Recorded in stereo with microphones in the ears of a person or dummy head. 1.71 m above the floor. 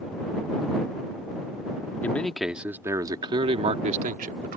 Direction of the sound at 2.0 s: 5° left (ahead or behind).